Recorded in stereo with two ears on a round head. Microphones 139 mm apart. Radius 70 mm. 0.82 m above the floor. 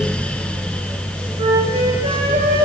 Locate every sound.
1.4 s a flute: 45° right (ahead or behind), 5 m